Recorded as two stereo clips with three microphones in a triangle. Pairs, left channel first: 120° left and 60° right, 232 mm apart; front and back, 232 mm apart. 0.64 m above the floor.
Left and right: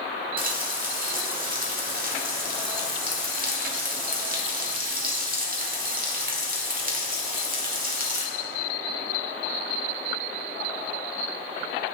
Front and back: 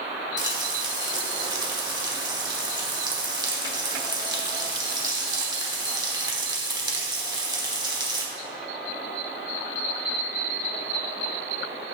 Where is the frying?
110° right, 1.3 m.